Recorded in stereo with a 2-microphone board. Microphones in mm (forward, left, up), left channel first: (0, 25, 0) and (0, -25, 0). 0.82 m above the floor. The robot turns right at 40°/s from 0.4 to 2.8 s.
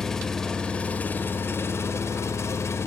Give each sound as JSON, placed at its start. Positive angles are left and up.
{"t": 0.0, "sound": "an engine running", "azimuth_deg": 10, "distance_m": 1.3}